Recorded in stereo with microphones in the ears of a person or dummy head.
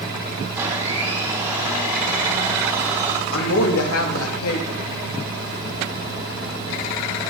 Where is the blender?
15° right (ahead or behind), 4.5 m.